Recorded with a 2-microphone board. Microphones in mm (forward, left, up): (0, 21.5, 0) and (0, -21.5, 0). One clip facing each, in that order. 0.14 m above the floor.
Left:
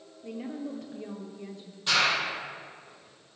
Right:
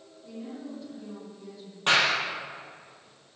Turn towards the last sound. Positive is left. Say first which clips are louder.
# right 2 dB
turn(degrees=-55)  # may be behind; listen again after turning